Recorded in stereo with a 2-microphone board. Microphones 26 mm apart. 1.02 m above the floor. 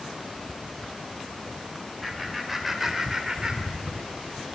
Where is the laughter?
Centre (ahead or behind), 4 m; by 4.1 s 45° right (ahead or behind), 2.5 m.